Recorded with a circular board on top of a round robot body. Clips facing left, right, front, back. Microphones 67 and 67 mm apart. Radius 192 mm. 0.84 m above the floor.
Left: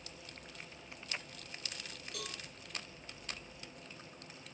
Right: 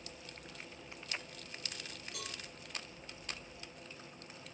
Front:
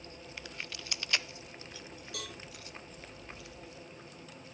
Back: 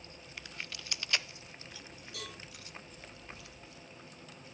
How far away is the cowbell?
About 2.5 m.